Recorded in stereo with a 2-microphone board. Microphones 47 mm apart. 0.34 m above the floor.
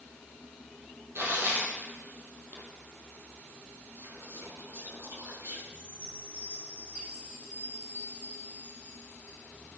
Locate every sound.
1.1 s tearing paper: 55° right (ahead or behind), 4 m
4.0 s whispering: 60° right (ahead or behind), 7 m
5.7 s a chime: 35° right (ahead or behind), 5.5 m